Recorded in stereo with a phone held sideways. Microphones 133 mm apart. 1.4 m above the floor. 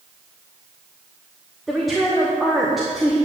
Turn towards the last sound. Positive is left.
turn(degrees=0)  # may be behind; listen again after turning